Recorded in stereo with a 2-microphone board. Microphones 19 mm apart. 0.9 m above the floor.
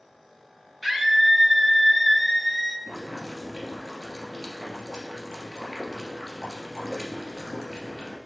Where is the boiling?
10° right (ahead or behind), 2.5 m.